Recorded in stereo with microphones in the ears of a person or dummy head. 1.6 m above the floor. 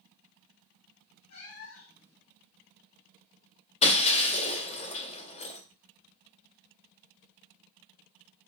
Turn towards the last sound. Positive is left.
turn(degrees=40)  # may be behind; listen again after turning